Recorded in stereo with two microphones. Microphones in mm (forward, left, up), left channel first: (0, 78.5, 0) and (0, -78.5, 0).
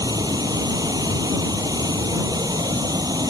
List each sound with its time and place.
0.0 s running water: 25° right (ahead or behind)